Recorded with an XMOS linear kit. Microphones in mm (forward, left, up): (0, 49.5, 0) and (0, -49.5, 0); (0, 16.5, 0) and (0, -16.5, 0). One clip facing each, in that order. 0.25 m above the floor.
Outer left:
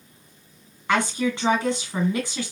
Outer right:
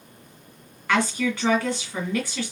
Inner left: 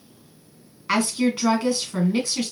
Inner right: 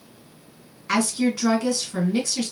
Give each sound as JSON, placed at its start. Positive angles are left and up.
{"t": 0.9, "sound": "a woman speaking", "side_deg": 20, "distance_m": 1.9}